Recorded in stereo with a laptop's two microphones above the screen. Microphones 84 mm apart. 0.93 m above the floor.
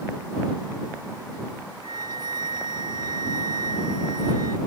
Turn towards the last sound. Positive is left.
turn(degrees=-60)  # may be behind; listen again after turning